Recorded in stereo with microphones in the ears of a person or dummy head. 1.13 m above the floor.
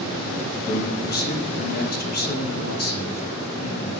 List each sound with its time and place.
0.7 s a man speaking: 50° left (ahead or behind), 1.0 m